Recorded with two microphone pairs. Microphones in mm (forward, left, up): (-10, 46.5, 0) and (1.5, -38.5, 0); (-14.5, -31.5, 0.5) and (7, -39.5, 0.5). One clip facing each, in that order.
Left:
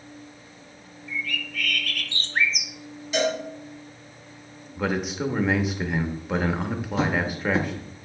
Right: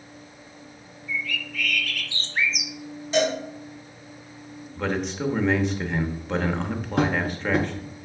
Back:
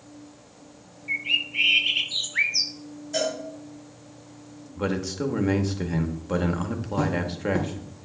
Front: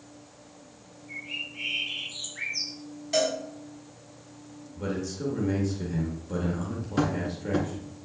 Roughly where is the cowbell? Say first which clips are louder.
Right 2 dB, front 1 dB; ahead right.